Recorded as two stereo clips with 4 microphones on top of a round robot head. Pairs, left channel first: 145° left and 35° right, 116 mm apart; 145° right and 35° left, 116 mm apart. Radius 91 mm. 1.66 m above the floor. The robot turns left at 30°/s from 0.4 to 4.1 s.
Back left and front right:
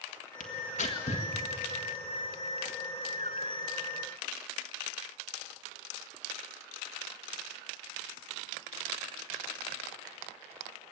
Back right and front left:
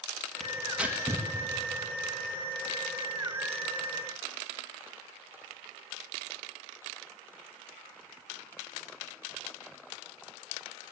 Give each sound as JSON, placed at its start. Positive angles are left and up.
{"t": 0.4, "sound": "tearing paper", "azimuth_deg": 130, "distance_m": 1.8}